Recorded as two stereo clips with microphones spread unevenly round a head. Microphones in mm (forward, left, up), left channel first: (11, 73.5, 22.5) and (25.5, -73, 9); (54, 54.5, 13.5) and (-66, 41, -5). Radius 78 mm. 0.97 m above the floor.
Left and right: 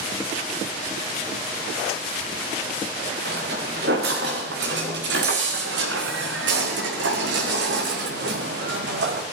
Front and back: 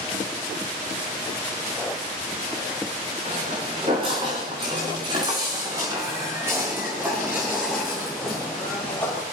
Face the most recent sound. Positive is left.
turn(degrees=-70)